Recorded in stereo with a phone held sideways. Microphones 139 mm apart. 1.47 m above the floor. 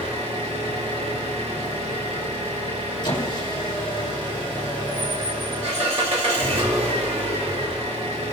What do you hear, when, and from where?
0.0 s an engine running: 50° right (ahead or behind), 2.0 m
3.0 s a squeak: 35° left (ahead or behind), 1.8 m